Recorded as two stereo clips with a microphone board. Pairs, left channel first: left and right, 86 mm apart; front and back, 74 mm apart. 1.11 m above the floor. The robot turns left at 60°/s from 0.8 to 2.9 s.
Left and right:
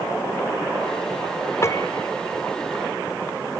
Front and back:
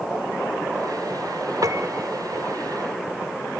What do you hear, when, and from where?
1.6 s a piano: 145° left; by 2.1 s 115° left